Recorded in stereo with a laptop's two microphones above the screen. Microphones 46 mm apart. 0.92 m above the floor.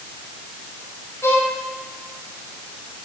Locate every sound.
1.2 s a violin: 75° left (ahead or behind), 4 m